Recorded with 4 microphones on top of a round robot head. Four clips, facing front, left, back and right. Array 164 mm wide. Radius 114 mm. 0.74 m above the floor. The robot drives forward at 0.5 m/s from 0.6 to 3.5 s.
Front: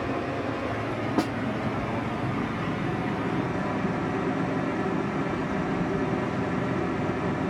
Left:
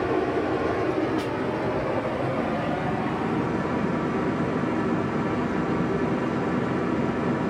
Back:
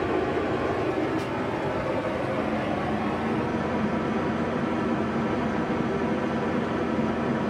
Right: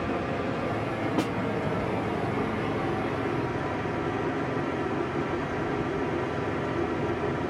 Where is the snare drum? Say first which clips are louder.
Even, front 4 dB; 30° right, 0.9 m; by 1.3 s 35° right, 0.8 m.